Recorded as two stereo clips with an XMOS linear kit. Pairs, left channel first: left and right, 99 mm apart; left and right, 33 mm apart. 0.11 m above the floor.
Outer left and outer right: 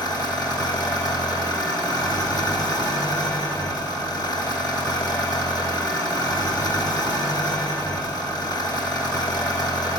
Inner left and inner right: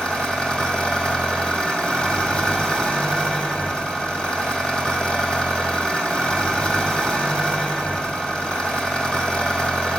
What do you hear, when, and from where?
0.0 s an engine running: 40° left (ahead or behind), 2.0 m